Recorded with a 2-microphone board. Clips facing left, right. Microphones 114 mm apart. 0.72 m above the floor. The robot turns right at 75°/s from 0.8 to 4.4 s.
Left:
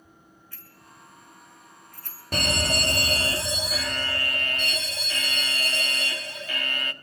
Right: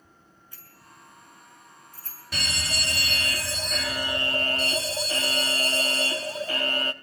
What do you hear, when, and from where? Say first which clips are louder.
0.5 s a bicycle bell: right 1 dB; 20° right (ahead or behind), 6.5 m; by 2.2 s 85° left, 6.5 m
2.3 s an alarm: left 8 dB; 65° left, 1.2 m; by 6.9 s 135° right, 1.2 m